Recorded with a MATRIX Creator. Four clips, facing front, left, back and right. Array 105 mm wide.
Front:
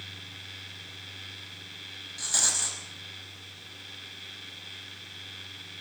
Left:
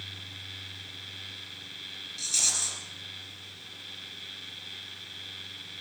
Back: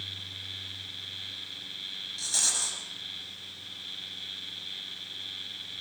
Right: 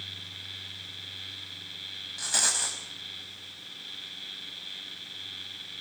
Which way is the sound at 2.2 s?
75° right.